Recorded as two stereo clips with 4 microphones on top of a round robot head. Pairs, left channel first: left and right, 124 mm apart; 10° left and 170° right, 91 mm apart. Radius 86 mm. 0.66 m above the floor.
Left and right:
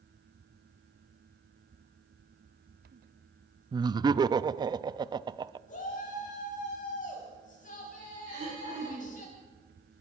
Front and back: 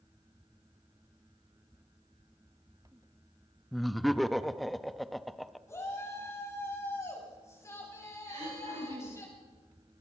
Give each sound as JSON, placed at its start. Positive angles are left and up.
{"t": 3.7, "sound": "laughter", "azimuth_deg": -80, "distance_m": 0.5}
{"t": 5.7, "sound": "a shout", "azimuth_deg": 70, "distance_m": 6.0}
{"t": 8.3, "sound": "throat clearing", "azimuth_deg": -145, "distance_m": 8.5}